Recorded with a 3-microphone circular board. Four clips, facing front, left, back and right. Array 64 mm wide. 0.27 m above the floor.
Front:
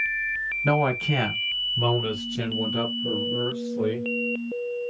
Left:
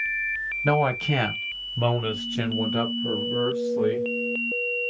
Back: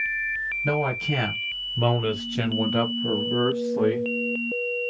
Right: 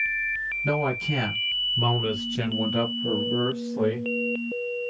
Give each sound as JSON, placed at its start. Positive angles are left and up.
{"t": 0.6, "sound": "a man speaking", "azimuth_deg": 60, "distance_m": 1.2}